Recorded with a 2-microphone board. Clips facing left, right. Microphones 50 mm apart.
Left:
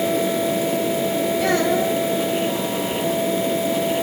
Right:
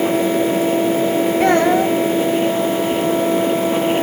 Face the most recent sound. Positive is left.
turn(degrees=-45)  # may be behind; listen again after turning